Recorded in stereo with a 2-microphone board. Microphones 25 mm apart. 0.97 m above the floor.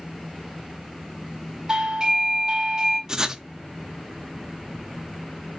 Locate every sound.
1.7 s a doorbell: 30° right (ahead or behind), 1.5 m
3.1 s writing: 25° right (ahead or behind), 0.6 m